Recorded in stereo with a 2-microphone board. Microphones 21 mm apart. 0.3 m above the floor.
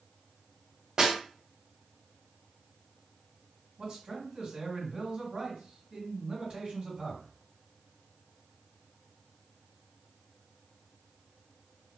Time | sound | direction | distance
1.0 | a snare drum | 35° right (ahead or behind) | 1.3 m
3.8 | a man speaking | 40° right (ahead or behind) | 1.9 m